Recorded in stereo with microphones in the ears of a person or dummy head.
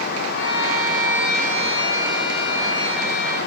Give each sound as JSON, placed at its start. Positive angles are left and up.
{"t": 0.3, "sound": "a violin", "side_deg": 80, "distance_m": 9.0}